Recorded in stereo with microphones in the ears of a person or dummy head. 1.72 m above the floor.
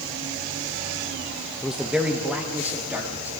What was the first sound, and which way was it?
A man speaking, centre (ahead or behind).